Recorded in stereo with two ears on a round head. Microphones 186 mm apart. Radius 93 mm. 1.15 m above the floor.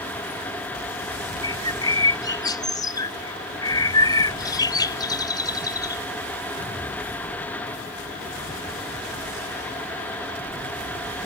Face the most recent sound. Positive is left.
turn(degrees=20)  # may be behind; listen again after turning